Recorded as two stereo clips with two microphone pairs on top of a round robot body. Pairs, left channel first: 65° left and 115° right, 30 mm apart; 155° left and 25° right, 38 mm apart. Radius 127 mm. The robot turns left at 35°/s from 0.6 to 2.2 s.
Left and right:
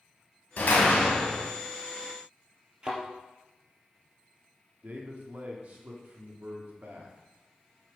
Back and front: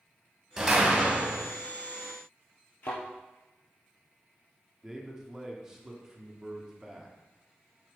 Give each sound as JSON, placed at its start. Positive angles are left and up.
{"t": 0.6, "sound": "a door slam", "azimuth_deg": 45, "distance_m": 2.5}
{"t": 2.8, "sound": "a thud", "azimuth_deg": -175, "distance_m": 2.5}
{"t": 4.8, "sound": "a man speaking", "azimuth_deg": -100, "distance_m": 2.0}